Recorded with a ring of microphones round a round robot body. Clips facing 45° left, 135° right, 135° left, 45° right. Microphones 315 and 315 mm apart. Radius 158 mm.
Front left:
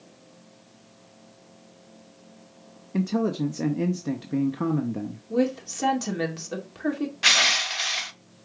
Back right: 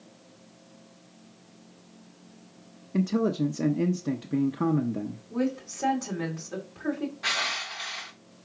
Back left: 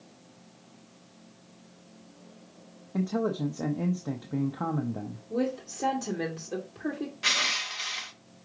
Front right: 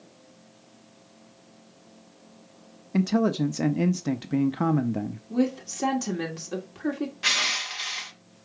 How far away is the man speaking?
About 0.5 m.